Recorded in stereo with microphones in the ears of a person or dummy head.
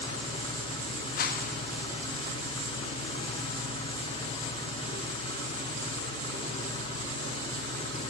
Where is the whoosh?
45° left (ahead or behind), 1.0 m.